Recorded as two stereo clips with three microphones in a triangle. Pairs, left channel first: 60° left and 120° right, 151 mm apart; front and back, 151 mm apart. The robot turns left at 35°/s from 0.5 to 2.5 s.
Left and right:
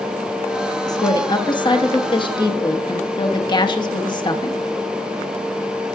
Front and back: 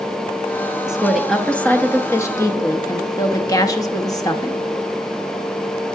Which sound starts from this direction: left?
A woman speaking, at 0.9 s.